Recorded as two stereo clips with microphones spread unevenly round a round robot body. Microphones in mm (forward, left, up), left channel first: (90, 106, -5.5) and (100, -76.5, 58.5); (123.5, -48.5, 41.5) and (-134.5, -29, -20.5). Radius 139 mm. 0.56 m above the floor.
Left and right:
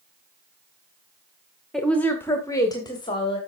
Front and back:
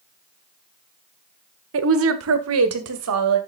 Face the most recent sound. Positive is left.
turn(degrees=155)